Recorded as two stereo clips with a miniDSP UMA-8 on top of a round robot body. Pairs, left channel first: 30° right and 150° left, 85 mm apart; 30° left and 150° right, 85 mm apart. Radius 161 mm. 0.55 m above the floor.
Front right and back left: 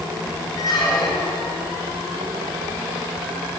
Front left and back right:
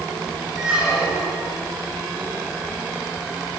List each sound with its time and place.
0.6 s a squeak: 70° right, 5 m